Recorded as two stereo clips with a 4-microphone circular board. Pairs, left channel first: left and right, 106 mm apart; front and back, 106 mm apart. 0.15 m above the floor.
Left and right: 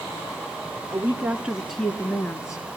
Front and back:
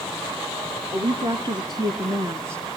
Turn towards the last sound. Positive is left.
turn(degrees=120)